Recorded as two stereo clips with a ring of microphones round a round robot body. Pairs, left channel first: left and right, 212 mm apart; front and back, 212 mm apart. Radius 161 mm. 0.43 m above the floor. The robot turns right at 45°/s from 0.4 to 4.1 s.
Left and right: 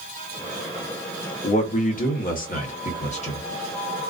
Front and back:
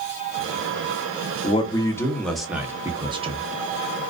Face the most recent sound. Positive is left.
turn(degrees=170)